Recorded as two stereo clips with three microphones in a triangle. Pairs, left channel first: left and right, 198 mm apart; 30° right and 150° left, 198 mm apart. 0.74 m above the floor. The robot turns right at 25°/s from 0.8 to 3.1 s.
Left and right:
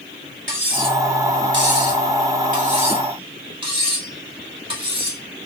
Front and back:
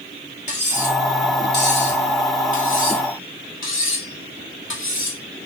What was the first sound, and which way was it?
Cutlery clinking, 85° right.